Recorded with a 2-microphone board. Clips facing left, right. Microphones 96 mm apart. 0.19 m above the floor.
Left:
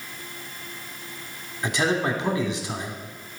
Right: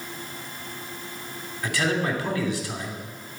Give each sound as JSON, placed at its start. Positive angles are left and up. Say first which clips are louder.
{"t": 1.6, "sound": "a man speaking", "louder": "left 2 dB", "side_deg": 20, "distance_m": 1.2}